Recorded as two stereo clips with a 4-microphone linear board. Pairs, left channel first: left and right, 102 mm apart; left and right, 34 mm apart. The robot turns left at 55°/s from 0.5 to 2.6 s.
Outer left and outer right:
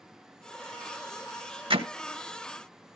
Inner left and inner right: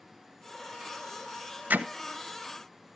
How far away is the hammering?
About 1.3 m.